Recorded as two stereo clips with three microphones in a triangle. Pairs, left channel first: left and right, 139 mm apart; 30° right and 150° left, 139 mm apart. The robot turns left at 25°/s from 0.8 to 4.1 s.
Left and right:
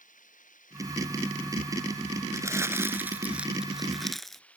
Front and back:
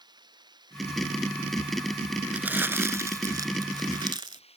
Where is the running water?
95° left; by 4.6 s 10° left.